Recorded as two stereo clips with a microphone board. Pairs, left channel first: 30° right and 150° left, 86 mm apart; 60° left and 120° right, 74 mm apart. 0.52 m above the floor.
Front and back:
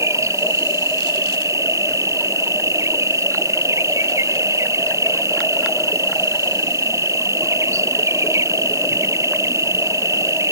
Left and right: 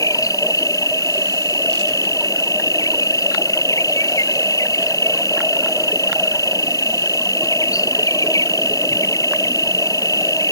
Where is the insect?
95° left.